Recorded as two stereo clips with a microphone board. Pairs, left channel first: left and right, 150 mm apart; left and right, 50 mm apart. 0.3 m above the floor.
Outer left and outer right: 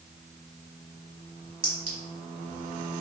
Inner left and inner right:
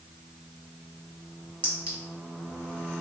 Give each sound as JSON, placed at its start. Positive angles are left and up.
{"t": 1.6, "sound": "a clink", "side_deg": -35, "distance_m": 1.3}